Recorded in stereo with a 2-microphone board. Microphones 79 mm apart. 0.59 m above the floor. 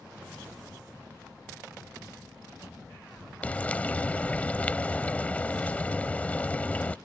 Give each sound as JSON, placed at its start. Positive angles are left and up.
{"t": 3.4, "sound": "frying", "side_deg": 20}